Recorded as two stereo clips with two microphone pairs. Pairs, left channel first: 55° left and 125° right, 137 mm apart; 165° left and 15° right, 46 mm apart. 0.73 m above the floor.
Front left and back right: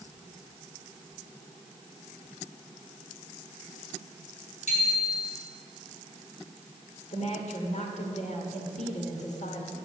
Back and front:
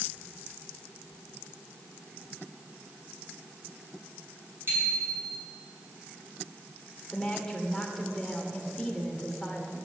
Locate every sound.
4.7 s a bicycle bell: 25° left, 5.5 m
7.1 s a woman speaking: 85° left, 2.5 m